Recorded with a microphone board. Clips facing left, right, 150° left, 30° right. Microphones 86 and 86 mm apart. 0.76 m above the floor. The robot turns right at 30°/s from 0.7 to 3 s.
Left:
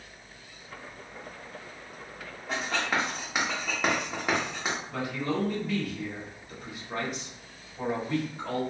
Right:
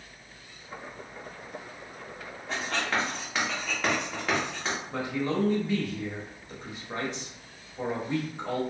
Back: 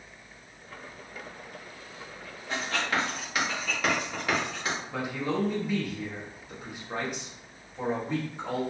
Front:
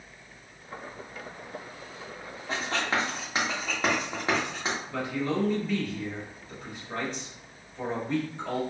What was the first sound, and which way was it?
Writing, straight ahead.